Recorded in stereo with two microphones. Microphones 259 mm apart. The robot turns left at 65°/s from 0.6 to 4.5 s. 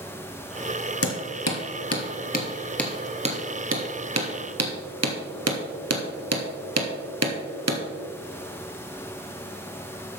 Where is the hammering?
60° left (ahead or behind), 1.6 m; by 7.8 s 75° right (ahead or behind), 1.6 m.